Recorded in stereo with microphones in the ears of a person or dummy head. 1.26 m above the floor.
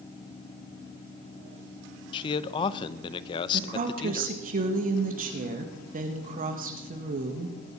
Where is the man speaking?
25° left (ahead or behind), 0.6 m.